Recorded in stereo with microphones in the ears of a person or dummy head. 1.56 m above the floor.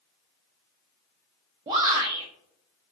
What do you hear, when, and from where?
1.7 s a shout: 25° right (ahead or behind), 0.5 m